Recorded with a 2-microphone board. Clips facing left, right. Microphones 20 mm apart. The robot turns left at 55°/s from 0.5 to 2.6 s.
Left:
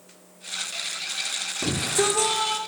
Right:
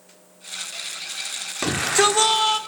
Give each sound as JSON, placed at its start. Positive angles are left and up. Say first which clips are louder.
{"t": 1.6, "sound": "a shout", "louder": "right 6 dB", "azimuth_deg": -105, "distance_m": 1.7}